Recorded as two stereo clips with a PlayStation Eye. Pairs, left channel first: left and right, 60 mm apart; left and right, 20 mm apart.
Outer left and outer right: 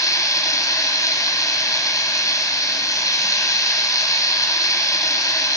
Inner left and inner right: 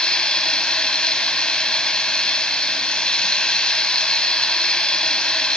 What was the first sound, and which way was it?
Running water, 70° left (ahead or behind).